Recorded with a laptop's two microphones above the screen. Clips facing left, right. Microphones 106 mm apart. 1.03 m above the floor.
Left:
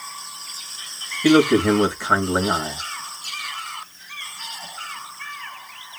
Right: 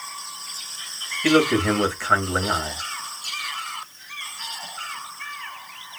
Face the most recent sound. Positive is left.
turn(degrees=15)  # may be behind; listen again after turning